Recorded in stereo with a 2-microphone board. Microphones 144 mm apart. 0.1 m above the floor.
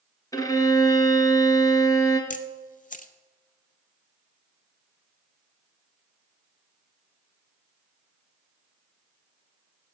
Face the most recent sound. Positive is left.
turn(degrees=70)  # may be behind; listen again after turning